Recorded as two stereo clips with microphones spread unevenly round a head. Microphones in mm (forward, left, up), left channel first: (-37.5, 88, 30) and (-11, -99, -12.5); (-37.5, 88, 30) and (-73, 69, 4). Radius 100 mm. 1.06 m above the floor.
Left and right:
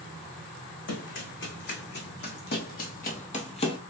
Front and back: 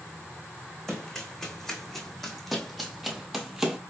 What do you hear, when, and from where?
0.9 s running footsteps: 90° left, 3 m